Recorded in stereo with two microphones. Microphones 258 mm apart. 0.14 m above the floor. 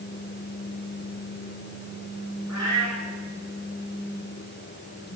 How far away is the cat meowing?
About 6.5 m.